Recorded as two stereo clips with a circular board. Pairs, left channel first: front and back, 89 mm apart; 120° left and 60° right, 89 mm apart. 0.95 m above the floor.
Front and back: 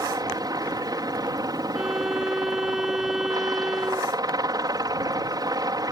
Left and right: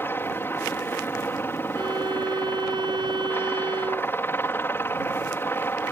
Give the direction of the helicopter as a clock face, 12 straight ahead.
6 o'clock.